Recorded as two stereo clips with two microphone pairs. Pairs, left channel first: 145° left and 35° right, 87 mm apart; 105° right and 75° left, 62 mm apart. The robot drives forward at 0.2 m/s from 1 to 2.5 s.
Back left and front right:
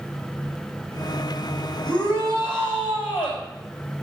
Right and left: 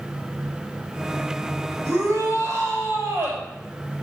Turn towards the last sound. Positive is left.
turn(degrees=125)